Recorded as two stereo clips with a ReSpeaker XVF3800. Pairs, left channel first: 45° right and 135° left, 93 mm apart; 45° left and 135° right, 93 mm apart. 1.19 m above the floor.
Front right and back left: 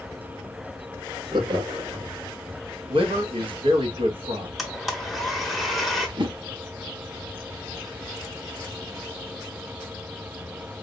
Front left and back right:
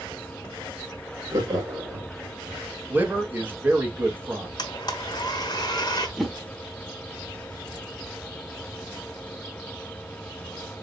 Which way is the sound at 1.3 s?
170° left.